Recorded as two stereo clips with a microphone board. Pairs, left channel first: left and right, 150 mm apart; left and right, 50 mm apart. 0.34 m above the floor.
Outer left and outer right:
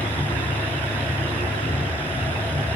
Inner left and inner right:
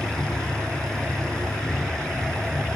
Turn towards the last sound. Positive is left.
turn(degrees=30)  # may be behind; listen again after turning